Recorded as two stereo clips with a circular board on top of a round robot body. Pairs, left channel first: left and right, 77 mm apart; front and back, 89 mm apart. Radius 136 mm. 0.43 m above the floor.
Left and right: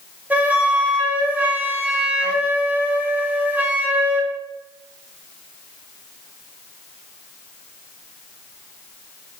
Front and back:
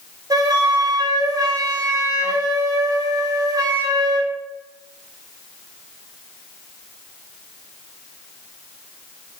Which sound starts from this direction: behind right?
A flute, at 0.3 s.